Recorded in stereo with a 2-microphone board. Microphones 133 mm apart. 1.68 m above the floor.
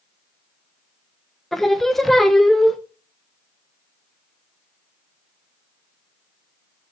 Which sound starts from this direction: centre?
Singing, at 1.5 s.